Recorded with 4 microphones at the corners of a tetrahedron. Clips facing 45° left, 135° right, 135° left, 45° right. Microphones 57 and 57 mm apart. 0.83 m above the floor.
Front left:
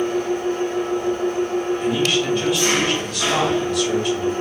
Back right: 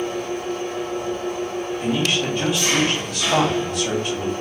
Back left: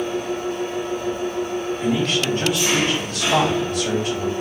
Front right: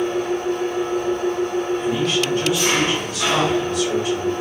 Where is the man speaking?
175° left, 1.7 m.